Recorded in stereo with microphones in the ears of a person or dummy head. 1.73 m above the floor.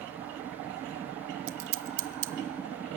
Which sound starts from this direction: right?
Scissors, at 1.5 s.